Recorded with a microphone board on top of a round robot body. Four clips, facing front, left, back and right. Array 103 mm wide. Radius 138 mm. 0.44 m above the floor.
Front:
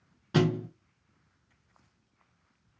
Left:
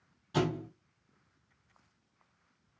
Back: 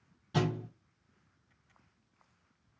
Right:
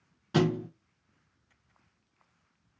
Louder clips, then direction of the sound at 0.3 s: Right 5 dB, front 6 dB; 40° right.